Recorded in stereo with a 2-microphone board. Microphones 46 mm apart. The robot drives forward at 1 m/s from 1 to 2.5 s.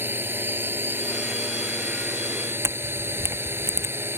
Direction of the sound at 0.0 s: 55° right (ahead or behind).